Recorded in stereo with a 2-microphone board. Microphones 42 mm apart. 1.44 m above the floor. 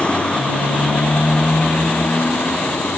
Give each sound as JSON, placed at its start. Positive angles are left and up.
{"t": 0.0, "sound": "a motorcycle", "side_deg": 25}